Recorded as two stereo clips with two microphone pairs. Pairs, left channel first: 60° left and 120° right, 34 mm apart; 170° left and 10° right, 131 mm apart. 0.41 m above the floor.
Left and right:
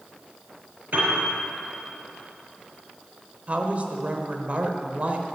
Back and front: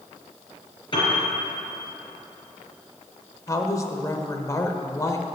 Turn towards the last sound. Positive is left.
turn(degrees=-135)